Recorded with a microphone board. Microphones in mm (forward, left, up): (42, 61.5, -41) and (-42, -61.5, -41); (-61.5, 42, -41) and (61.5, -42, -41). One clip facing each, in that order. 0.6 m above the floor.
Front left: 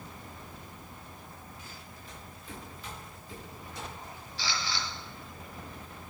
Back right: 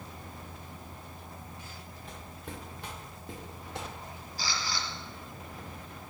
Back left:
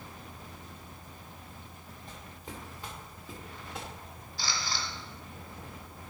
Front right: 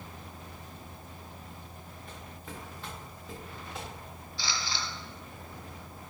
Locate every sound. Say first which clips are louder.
2.1 s footsteps: back right 3 dB, even; 150° right, 3.5 m; by 3.9 s 125° right, 5 m
4.4 s a camera shutter: even, even; 170° right, 2.5 m